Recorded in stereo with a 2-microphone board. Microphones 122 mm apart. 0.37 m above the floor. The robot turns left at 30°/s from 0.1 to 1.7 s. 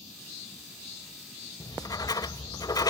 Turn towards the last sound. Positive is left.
turn(degrees=30)  # may be behind; listen again after turning